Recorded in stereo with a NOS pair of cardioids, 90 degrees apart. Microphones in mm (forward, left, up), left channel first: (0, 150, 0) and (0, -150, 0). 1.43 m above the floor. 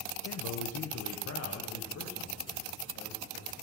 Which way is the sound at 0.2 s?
60° left.